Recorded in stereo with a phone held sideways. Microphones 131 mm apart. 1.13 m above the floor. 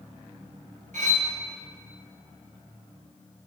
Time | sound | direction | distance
0.9 | cutlery clinking | 70° right (ahead or behind) | 1.1 m